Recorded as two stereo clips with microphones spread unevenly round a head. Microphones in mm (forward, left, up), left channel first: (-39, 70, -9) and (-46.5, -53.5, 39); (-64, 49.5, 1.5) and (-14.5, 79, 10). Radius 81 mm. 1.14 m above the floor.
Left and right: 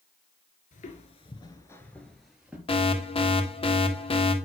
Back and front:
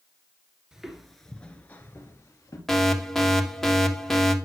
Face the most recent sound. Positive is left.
turn(degrees=130)